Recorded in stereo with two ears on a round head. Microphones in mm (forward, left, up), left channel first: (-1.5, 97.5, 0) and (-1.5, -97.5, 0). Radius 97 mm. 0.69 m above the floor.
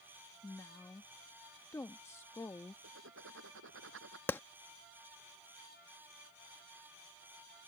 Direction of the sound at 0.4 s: 10° left (ahead or behind).